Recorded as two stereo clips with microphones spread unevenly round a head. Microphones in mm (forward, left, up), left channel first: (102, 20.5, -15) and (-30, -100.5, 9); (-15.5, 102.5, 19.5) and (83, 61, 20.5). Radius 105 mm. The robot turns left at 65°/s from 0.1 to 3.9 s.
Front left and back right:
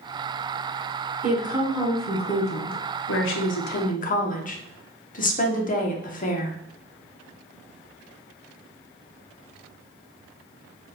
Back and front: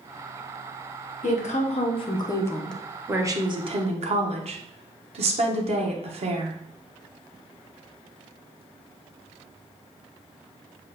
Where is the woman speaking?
170° left, 1.1 m; by 6.6 s 5° right, 1.1 m.